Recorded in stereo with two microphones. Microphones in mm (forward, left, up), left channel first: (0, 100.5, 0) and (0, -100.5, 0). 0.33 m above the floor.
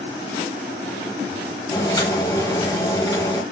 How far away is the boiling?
About 1.0 m.